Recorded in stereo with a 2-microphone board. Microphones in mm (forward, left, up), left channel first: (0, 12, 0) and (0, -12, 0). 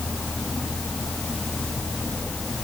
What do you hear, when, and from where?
Only background noise.